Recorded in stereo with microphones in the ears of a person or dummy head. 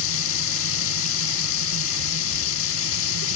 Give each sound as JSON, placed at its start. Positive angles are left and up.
{"t": 0.0, "sound": "running water", "side_deg": 80}